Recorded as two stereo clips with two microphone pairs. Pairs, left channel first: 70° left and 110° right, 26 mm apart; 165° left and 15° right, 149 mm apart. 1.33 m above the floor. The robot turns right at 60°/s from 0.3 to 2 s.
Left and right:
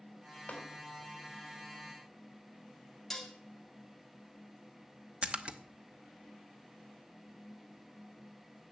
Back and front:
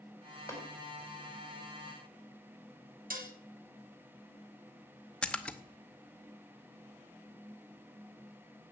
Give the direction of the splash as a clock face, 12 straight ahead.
4 o'clock.